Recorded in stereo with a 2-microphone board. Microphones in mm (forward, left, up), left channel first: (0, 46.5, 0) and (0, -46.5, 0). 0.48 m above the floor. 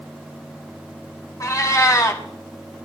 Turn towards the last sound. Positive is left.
turn(degrees=35)  # may be behind; listen again after turning